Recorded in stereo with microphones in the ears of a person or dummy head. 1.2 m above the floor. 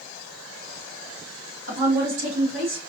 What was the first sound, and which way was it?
A woman speaking, 65° right (ahead or behind).